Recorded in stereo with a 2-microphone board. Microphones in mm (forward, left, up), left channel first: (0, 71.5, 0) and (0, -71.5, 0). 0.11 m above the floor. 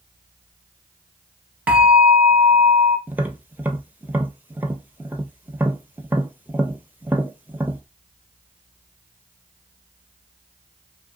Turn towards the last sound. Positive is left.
turn(degrees=-15)  # may be behind; listen again after turning